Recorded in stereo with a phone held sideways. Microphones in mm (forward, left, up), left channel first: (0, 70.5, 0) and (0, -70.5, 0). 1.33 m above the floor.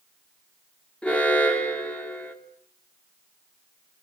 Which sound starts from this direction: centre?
An alarm, at 1.0 s.